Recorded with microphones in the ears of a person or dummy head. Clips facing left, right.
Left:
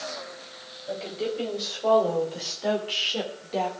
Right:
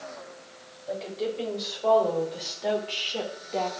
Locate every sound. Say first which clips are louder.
0.9 s a woman speaking: left 1 dB; 5° left (ahead or behind), 3.5 m; by 3.7 s 10° left (ahead or behind), 1.9 m